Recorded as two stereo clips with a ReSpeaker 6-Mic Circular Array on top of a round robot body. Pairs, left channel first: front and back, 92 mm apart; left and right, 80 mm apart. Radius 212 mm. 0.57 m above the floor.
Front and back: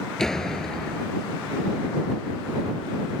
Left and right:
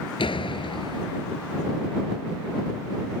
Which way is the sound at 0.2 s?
85° left.